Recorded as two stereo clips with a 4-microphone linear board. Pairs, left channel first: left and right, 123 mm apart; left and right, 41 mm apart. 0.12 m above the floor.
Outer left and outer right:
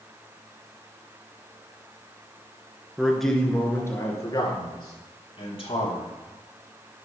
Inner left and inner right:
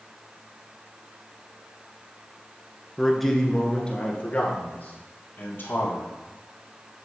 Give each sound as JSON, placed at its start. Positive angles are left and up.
{"t": 3.0, "sound": "a man speaking", "side_deg": -5, "distance_m": 1.3}